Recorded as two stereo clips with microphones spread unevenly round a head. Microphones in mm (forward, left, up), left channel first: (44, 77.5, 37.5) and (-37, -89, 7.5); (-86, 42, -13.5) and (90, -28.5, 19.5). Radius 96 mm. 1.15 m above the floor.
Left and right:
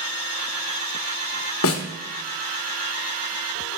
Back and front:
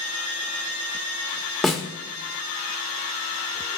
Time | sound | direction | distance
1.6 | a snare drum | 65° left | 1.1 m